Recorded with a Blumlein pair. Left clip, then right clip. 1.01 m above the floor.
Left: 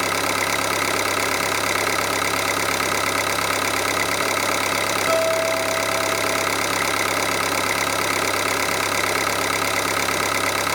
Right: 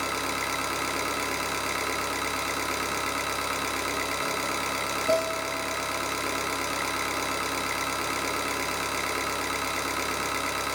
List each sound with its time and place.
0.0 s an engine running: 25° left, 1.0 m
5.1 s a guitar: 65° left, 8 m